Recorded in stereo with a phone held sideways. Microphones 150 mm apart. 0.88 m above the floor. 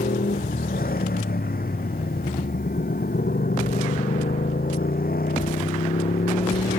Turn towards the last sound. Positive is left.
turn(degrees=80)